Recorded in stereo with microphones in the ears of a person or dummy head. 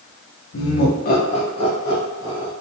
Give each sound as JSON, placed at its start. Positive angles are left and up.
{"t": 0.5, "sound": "laughter", "side_deg": 70, "distance_m": 0.5}